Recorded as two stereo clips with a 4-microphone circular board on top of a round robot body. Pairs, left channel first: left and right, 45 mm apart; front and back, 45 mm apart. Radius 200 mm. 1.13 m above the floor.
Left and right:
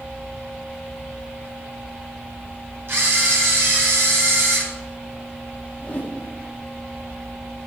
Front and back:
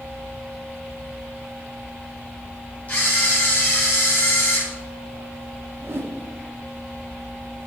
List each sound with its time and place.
2.9 s a camera shutter: 55° right, 4.5 m
5.8 s a whoosh: 150° left, 0.9 m